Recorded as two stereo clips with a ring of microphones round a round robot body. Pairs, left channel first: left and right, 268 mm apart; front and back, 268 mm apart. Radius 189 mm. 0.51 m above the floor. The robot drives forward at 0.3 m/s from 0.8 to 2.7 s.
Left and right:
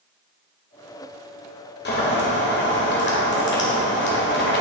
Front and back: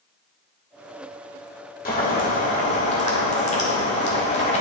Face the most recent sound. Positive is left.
turn(degrees=55)